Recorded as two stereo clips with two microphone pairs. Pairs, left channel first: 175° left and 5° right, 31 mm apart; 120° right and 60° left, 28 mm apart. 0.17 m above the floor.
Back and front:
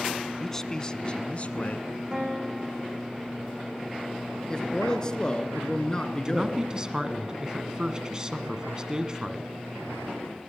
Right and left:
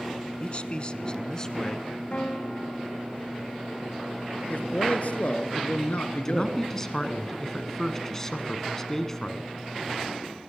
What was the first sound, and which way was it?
A man speaking, 110° right.